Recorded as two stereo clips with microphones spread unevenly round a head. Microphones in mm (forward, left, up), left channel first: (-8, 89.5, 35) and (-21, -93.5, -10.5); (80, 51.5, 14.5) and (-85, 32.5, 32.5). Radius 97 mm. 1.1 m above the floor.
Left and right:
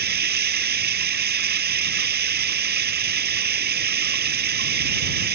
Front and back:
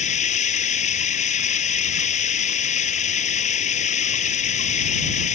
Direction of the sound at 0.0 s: 50° right.